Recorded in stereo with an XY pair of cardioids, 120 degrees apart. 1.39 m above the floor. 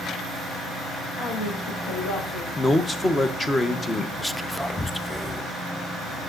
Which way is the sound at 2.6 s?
20° left.